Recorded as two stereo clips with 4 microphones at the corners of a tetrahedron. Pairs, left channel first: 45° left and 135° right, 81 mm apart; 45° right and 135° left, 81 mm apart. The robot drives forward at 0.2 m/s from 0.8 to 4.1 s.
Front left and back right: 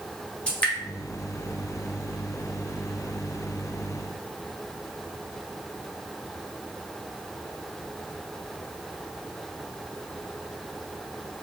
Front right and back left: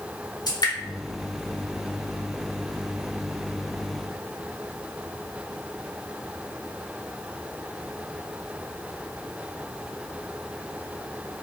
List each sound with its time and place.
0.5 s dripping: 30° right, 0.9 m